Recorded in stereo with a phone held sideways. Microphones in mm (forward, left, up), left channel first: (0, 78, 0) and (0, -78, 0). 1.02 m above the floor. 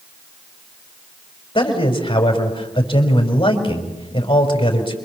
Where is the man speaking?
30° left (ahead or behind), 5 m.